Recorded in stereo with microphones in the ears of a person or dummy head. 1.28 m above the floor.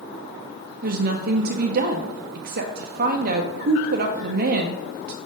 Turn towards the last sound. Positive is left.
turn(degrees=-50)  # may be behind; listen again after turning